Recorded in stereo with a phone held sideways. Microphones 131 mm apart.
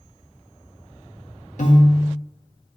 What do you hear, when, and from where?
1.6 s a piano: 75° left (ahead or behind), 1.6 m